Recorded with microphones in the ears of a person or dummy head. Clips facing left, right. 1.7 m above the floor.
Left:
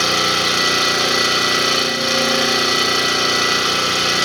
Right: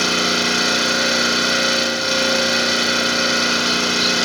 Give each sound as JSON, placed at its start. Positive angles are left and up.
{"t": 0.0, "sound": "an engine running", "side_deg": 70, "distance_m": 8.0}